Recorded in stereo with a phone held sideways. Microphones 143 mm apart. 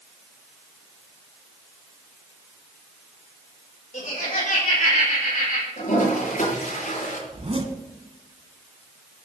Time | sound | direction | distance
3.9 | laughter | 65° left (ahead or behind) | 4.5 m
5.8 | a toilet flushing | 70° left (ahead or behind) | 6.5 m
7.3 | a zipper | 45° right (ahead or behind) | 1.6 m